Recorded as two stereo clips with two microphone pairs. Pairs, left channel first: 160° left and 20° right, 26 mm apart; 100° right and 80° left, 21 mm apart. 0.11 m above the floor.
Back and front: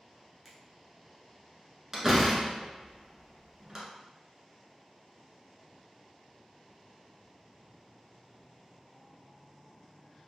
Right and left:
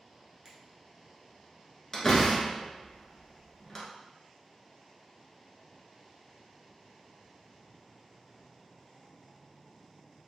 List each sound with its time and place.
0.5 s a finger snap: 65° left, 0.9 m
1.9 s a door slam: 65° right, 0.9 m